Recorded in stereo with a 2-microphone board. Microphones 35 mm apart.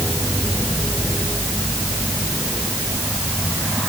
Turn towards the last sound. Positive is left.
No sound to turn to.